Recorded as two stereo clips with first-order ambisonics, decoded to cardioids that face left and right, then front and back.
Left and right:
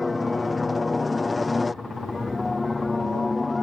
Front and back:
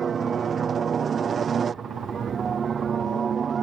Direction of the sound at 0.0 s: 155° left.